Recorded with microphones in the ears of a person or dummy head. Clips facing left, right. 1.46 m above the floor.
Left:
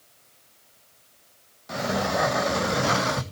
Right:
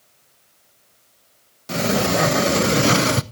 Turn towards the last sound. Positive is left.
turn(degrees=-45)  # may be behind; listen again after turning